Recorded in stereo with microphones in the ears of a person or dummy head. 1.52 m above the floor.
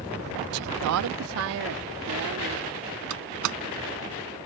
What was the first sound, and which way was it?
A woman speaking, 80° right.